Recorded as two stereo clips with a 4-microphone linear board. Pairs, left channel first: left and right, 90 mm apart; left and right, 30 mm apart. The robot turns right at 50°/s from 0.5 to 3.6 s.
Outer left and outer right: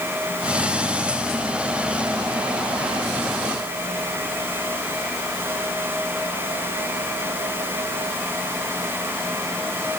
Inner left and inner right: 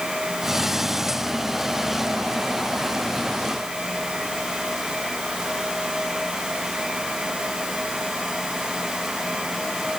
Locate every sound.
Only background noise.